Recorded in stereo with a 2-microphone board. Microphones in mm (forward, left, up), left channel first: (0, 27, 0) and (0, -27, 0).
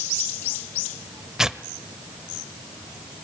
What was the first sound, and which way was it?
Tearing paper, 10° right (ahead or behind).